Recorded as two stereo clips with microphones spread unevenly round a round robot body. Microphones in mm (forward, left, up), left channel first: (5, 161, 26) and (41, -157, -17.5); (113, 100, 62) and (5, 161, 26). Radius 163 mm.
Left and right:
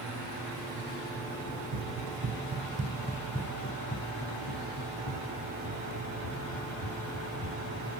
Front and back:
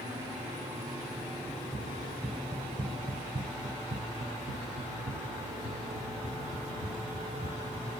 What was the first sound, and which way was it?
Running footsteps, 105° right.